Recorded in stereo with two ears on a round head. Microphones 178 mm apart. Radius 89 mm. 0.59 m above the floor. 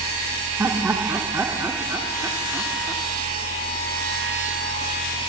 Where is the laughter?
10° right (ahead or behind), 1.1 m.